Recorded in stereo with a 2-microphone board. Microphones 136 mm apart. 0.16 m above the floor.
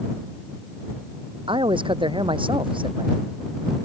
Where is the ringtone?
I don't hear a ringtone.